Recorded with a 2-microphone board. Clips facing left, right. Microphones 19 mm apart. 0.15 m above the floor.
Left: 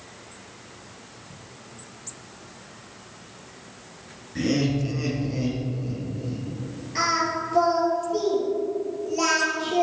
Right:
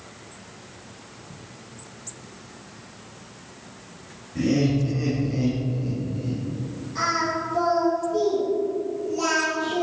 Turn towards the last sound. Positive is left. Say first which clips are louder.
# left 1 dB
turn(degrees=45)  # may be behind; listen again after turning